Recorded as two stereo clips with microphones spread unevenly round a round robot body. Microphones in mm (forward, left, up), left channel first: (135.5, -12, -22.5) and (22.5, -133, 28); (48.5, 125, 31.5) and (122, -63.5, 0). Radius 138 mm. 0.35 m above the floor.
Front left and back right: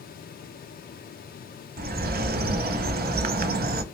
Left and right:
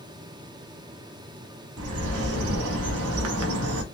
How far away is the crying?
No crying in this recording.